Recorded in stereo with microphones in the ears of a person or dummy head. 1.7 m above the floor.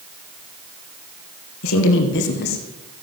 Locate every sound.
1.6 s a woman speaking: 75° left (ahead or behind), 2 m; by 2.6 s 45° left (ahead or behind), 1.7 m